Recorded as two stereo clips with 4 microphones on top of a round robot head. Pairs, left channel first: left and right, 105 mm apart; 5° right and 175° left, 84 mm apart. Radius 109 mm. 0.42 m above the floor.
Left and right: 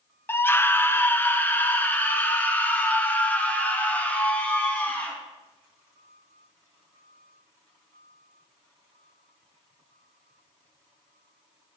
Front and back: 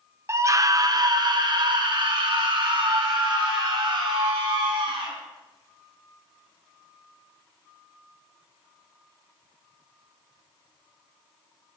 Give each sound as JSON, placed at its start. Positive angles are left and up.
{"t": 0.3, "sound": "a scream", "azimuth_deg": 145, "distance_m": 0.9}